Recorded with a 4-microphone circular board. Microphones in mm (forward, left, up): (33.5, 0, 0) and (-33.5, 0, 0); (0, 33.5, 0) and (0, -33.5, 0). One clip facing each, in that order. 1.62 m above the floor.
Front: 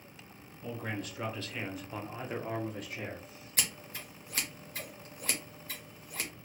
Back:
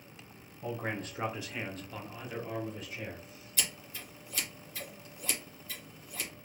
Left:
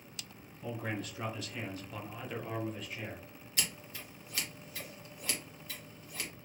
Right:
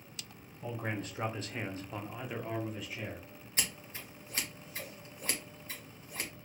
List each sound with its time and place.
0.6 s a man speaking: 145° right, 0.9 m; by 3.3 s straight ahead, 1.0 m
3.6 s scissors: 35° right, 0.8 m